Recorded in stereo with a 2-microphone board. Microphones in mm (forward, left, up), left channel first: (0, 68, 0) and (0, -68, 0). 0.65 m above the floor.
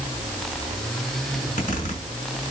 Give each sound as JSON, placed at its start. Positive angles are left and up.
{"t": 1.3, "sound": "a zipper", "side_deg": 60, "distance_m": 7.0}